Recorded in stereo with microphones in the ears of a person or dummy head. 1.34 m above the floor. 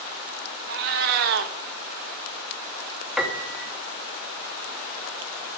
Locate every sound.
0.7 s a cat meowing: 50° right (ahead or behind), 0.7 m
3.2 s a piano: centre (ahead or behind), 1.3 m